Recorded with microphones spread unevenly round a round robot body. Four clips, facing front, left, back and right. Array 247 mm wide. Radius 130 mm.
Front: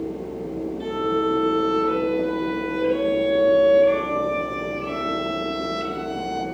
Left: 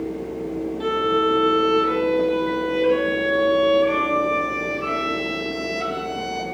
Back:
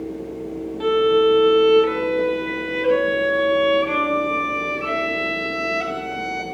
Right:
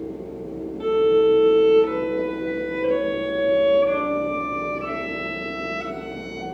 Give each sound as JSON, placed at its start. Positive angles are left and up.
{"t": 0.8, "sound": "a violin", "azimuth_deg": 165, "distance_m": 2.0}